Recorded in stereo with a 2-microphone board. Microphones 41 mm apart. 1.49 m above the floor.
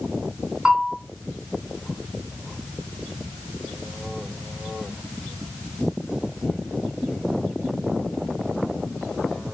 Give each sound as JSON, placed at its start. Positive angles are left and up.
{"t": 0.7, "sound": "a bell", "side_deg": -15, "distance_m": 4.0}